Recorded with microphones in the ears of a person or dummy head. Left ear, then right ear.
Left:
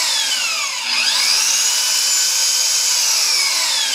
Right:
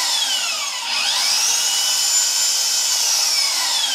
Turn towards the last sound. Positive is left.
turn(degrees=40)  # may be behind; listen again after turning